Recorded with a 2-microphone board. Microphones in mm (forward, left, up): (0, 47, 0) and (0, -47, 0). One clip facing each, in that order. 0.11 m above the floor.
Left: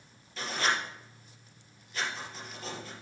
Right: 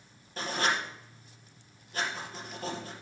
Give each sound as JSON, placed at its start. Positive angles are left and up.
{"t": 0.4, "sound": "writing", "side_deg": -45, "distance_m": 3.0}